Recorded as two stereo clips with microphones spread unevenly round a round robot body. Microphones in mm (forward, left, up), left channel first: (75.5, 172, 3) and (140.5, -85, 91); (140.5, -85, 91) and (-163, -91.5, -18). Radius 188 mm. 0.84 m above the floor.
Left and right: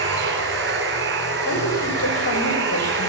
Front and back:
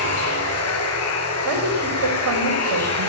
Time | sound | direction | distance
0.0 | running water | 30° right | 8 m
1.4 | a woman speaking | 155° left | 4 m